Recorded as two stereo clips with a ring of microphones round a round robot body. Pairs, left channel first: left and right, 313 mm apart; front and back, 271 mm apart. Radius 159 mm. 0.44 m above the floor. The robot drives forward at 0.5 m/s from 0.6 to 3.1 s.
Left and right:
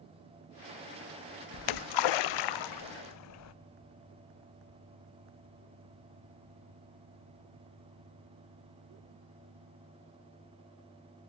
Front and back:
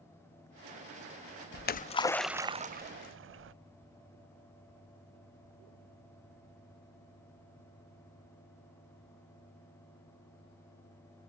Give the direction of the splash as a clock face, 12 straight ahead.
10 o'clock.